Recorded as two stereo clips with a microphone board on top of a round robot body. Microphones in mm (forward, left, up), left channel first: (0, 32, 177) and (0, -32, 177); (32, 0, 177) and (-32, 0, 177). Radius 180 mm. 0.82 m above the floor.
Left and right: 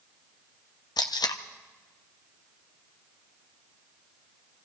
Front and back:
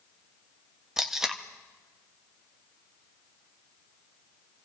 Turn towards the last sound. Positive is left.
turn(degrees=95)